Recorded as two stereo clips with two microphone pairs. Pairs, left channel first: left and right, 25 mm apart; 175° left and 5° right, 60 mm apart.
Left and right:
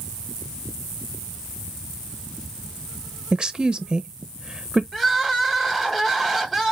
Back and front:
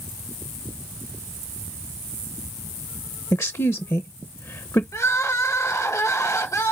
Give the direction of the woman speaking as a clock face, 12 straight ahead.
5 o'clock.